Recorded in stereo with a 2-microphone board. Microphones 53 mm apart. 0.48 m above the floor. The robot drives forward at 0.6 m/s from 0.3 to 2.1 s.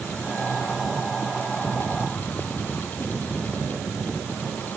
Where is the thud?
No thud in this recording.